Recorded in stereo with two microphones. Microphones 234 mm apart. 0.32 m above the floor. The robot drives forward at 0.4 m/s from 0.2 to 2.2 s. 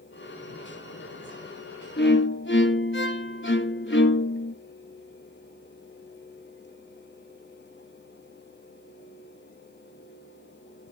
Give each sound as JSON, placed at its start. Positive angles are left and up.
{"t": 2.0, "sound": "a violin", "side_deg": 50, "distance_m": 1.0}